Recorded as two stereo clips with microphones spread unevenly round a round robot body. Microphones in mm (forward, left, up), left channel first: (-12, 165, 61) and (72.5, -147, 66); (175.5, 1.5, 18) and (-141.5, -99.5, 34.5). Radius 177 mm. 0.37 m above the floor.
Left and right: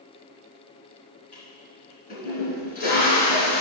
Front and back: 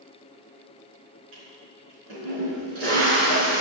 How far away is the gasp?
No gasp in this recording.